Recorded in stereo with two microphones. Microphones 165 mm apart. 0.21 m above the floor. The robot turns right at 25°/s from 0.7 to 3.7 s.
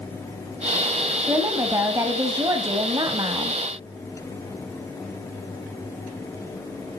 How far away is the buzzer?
I don't hear a buzzer.